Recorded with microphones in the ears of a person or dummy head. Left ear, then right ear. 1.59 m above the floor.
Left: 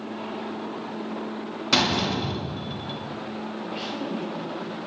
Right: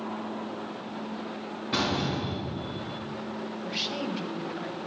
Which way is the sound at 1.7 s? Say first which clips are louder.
Left 6 dB; 55° left (ahead or behind).